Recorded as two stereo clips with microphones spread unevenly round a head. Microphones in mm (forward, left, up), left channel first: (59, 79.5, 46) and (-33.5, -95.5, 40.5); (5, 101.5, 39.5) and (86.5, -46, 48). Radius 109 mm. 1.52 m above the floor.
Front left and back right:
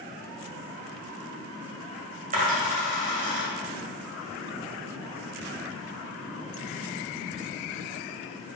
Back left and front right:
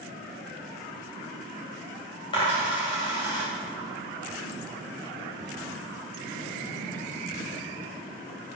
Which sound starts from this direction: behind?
A dropped coin, at 2.3 s.